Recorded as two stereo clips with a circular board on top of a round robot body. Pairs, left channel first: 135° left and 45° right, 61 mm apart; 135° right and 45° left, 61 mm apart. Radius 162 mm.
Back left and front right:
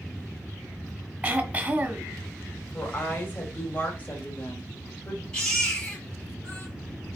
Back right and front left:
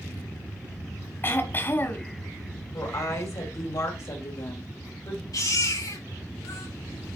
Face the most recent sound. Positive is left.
turn(degrees=-145)